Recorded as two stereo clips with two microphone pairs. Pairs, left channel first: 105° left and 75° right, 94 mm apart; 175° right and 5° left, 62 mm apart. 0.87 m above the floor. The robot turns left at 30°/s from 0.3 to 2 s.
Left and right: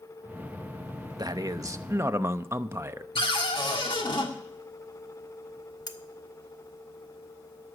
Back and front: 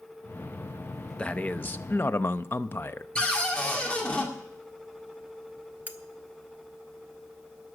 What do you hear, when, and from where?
1.2 s a man speaking: 105° right, 0.7 m; by 3.0 s 130° right, 0.7 m
3.1 s a cupboard door: 115° left, 2 m
5.9 s cutlery clinking: 70° left, 0.9 m